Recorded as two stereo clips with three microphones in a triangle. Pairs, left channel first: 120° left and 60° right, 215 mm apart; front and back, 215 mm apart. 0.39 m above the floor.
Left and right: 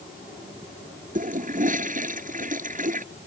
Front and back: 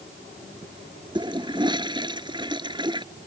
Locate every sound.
1.1 s a toilet flushing: 110° right